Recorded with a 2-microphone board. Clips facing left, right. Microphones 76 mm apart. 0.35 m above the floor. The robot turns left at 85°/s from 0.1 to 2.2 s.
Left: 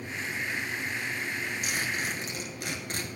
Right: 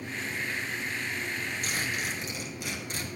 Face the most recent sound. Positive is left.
turn(degrees=125)